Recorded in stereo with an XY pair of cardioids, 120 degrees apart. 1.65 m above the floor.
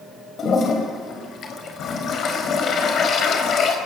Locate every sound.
0.4 s a toilet flushing: 50° left, 4.5 m